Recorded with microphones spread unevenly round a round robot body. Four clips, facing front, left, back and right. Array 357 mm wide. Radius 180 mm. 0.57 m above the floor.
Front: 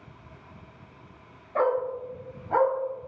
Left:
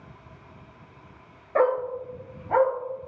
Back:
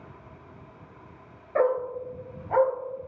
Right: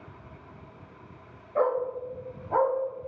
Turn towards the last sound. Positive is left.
turn(degrees=100)